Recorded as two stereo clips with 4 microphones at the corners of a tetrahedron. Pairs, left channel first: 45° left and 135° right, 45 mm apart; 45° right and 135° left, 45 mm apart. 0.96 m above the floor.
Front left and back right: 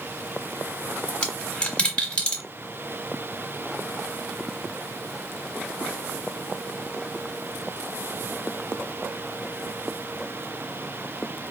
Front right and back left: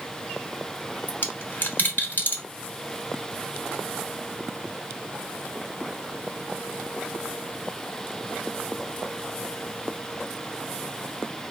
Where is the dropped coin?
15° right, 1.0 m.